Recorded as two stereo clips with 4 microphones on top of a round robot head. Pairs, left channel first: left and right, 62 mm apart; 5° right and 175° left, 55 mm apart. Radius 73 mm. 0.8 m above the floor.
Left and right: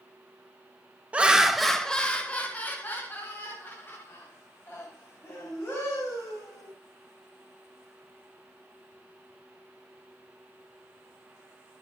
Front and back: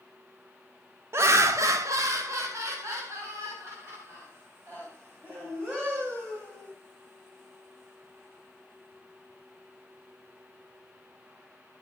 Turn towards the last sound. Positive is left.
turn(degrees=135)